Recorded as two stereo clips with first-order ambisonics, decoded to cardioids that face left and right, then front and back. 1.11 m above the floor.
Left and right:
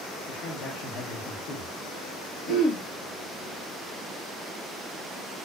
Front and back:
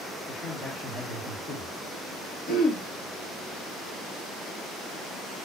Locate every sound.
0.3 s a man speaking: 75° left, 1.3 m
2.5 s throat clearing: 50° left, 1.1 m